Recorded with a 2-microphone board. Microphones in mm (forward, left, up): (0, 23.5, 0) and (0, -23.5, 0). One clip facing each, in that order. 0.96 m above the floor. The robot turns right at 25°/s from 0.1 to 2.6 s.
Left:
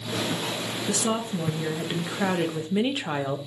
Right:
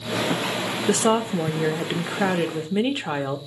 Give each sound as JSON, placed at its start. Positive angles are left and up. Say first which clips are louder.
{"t": 0.9, "sound": "a woman speaking", "louder": "right 7 dB", "azimuth_deg": -50, "distance_m": 0.5}